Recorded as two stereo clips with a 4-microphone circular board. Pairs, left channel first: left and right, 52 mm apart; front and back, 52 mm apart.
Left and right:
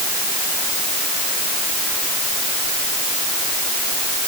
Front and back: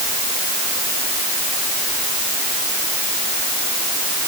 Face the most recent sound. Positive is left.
No sound to turn to.